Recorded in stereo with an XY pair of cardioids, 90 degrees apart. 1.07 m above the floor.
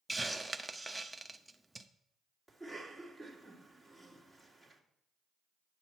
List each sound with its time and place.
0.1 s a hiss: 10° right, 0.6 m
2.5 s a cough: 10° left, 1.9 m